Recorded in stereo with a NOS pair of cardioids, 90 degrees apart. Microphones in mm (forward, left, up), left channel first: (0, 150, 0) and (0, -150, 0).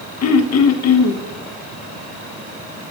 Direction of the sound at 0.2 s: 60° left.